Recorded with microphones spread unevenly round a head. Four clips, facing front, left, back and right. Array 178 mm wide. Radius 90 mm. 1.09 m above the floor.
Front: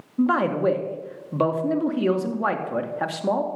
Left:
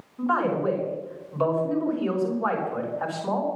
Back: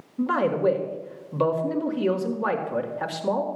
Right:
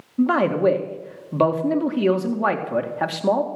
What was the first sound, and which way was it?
A man speaking, 60° right.